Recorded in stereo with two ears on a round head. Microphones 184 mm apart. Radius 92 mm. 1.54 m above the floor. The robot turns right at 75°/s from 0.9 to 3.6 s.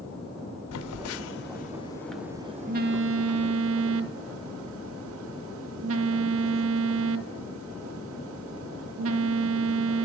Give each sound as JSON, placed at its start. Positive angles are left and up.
{"t": 0.7, "sound": "a phone buzzing", "azimuth_deg": 85, "distance_m": 0.6}